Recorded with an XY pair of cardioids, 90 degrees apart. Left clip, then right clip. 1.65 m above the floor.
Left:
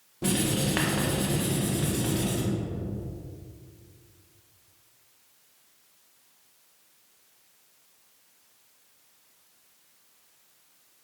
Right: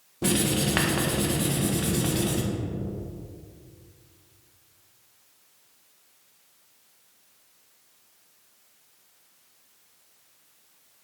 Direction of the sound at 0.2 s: 30° right.